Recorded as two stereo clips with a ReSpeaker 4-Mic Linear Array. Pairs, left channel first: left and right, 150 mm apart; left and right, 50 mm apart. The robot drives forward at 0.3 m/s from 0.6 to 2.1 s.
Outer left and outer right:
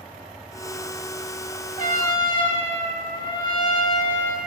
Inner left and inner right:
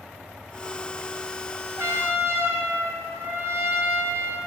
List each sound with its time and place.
1.8 s a trumpet: 65° right (ahead or behind), 1.4 m